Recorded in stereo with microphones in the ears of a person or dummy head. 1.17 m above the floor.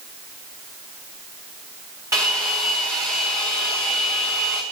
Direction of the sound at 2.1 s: 15° right (ahead or behind).